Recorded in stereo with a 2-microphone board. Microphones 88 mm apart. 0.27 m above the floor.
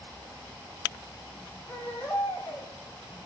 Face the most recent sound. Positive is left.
turn(degrees=20)  # may be behind; listen again after turning